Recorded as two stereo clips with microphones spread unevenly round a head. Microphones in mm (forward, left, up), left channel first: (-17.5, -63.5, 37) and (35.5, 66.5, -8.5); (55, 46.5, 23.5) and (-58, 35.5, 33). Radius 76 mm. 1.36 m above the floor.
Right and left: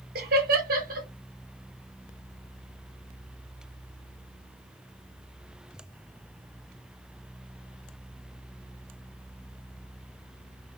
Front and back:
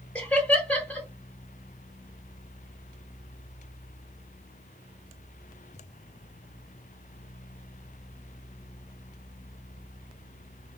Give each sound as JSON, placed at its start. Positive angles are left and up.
{"t": 0.1, "sound": "laughter", "azimuth_deg": 85, "distance_m": 3.0}